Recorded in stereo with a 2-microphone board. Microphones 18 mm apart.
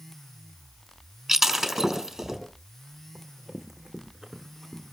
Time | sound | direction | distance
1.3 | breaking glass | 15° right (ahead or behind) | 4.5 m
3.1 | running footsteps | 25° right (ahead or behind) | 6 m